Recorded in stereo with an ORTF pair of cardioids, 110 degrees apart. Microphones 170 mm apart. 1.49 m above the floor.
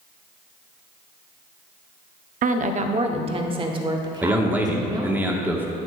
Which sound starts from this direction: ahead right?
A woman speaking, at 2.4 s.